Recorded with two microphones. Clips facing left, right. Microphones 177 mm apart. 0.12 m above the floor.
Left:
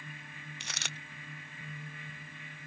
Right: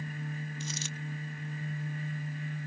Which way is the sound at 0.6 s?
65° left (ahead or behind).